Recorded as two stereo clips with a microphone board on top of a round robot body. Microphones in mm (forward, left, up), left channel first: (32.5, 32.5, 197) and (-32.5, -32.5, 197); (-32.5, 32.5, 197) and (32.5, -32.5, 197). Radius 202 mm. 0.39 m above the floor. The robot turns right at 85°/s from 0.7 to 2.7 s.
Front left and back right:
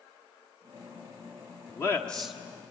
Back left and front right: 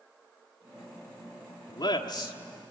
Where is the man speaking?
90° left, 1.5 m; by 2.4 s 145° left, 1.5 m.